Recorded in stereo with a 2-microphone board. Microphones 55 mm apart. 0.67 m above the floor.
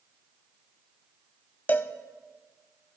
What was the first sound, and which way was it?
A cowbell, 35° left (ahead or behind).